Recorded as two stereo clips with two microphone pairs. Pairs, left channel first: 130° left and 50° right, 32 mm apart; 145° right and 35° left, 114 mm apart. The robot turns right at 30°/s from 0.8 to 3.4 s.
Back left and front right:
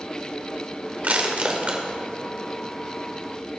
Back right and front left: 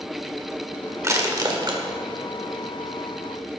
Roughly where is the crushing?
Ahead right.